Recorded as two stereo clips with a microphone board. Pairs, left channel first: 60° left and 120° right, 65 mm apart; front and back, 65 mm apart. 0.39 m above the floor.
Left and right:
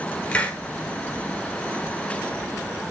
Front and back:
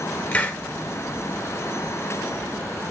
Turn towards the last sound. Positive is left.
turn(degrees=30)